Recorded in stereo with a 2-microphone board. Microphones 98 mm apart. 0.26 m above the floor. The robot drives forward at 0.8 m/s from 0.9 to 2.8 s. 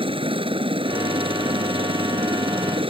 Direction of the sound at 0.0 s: 65° right (ahead or behind).